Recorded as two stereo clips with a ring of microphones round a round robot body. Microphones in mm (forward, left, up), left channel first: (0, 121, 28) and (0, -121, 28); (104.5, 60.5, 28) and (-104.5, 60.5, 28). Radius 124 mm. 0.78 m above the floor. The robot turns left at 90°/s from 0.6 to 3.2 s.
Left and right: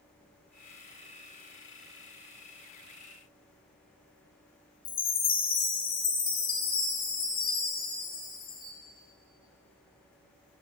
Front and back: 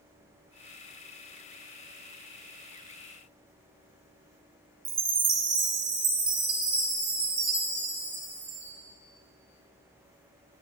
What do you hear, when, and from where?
4.8 s a chime: 125° left, 0.7 m